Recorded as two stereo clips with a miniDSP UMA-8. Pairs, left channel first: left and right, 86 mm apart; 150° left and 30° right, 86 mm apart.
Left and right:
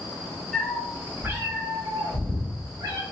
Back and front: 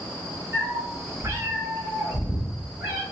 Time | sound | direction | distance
0.5 | a cat meowing | 10° left | 0.8 m